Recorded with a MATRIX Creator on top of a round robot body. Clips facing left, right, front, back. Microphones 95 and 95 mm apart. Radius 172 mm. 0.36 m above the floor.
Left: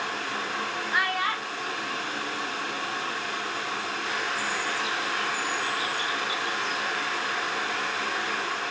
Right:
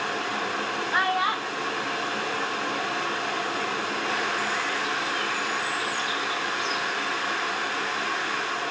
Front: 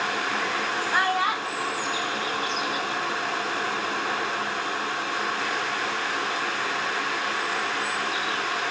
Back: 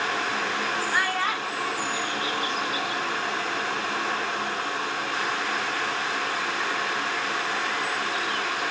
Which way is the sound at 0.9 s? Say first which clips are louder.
Right 3 dB, front 5 dB; 45° right.